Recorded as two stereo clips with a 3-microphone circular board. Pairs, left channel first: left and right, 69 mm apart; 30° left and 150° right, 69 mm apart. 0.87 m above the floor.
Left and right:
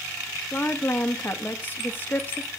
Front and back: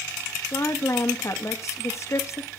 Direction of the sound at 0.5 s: 40° left.